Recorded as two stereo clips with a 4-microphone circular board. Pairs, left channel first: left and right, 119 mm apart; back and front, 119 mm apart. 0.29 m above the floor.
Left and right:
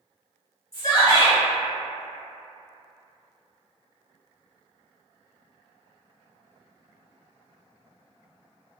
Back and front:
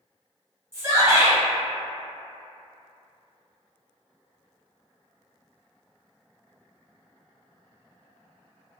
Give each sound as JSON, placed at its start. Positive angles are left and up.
{"t": 0.7, "sound": "a shout", "azimuth_deg": 45, "distance_m": 1.4}